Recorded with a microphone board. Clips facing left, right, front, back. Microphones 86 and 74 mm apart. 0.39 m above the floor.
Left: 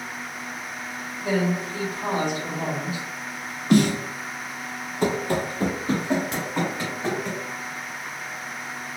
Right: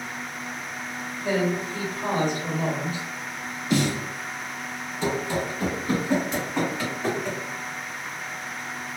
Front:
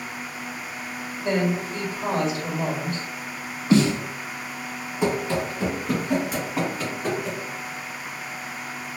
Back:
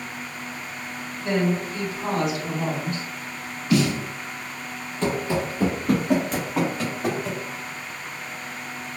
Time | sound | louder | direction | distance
1.2 | a woman speaking | left 1 dB, even | 10° left | 1.3 m
3.7 | a snare drum | left 5 dB, front 2 dB | 60° left | 0.5 m
5.0 | running footsteps | left 3 dB, front 1 dB | 70° left | 0.6 m
6.3 | a crack | right 1 dB, back 1 dB | 80° left | 1.1 m